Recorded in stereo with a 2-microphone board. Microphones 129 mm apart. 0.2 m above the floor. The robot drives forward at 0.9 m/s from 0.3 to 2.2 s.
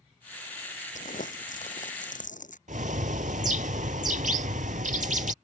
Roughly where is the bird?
Right.